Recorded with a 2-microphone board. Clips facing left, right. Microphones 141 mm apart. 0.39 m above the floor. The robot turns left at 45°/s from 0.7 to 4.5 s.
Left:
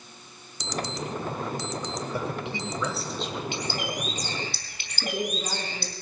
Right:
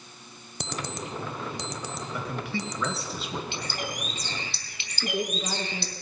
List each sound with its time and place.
0.6 s an alarm clock: 55° right (ahead or behind), 0.7 m; by 3.1 s 45° left (ahead or behind), 0.7 m
2.1 s a man speaking: 40° left, 1.8 m; by 3.4 s 15° right, 1.8 m
3.5 s a bird: 165° left, 2 m; by 5.9 s 120° left, 2 m
5.0 s a woman speaking: 30° left (ahead or behind), 4 m